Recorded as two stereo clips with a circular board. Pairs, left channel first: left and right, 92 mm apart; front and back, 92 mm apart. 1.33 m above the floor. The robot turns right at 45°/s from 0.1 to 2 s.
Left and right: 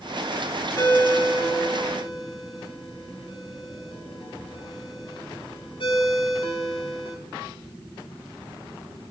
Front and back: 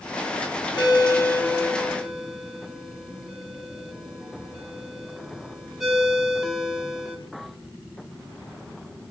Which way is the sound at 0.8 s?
40° left.